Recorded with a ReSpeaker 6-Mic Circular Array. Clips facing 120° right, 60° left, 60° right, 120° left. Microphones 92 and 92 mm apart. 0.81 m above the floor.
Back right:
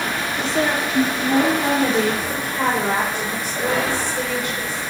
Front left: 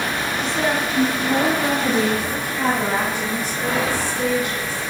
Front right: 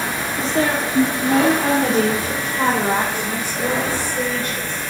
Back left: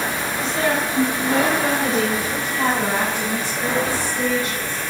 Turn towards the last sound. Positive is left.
turn(degrees=-90)